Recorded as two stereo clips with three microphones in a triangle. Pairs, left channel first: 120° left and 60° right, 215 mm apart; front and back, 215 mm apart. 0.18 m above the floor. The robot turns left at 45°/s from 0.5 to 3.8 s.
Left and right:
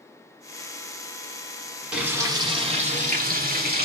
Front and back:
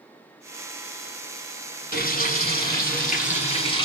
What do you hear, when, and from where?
1.9 s frying: 25° left, 1.3 m; by 3.9 s 60° right, 1.3 m